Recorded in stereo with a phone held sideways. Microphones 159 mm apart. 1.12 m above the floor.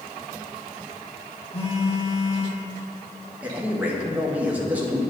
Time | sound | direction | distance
1.5 | a phone buzzing | 45° left (ahead or behind) | 3 m
3.4 | a man speaking | 10° right (ahead or behind) | 1.4 m